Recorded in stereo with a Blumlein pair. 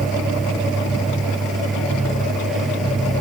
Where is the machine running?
10° right.